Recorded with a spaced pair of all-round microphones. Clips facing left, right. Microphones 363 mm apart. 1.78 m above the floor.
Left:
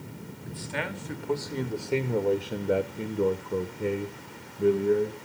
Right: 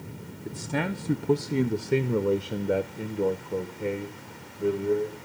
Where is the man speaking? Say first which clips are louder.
Right 6 dB; 60° right (ahead or behind), 1.1 m; by 5.2 s 30° left (ahead or behind), 2 m.